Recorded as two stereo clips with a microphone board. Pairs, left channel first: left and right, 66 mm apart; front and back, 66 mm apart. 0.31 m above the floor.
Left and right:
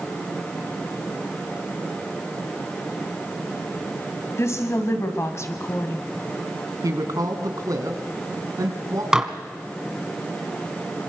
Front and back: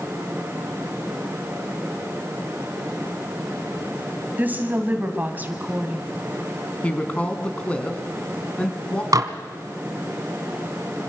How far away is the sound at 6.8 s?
About 3 m.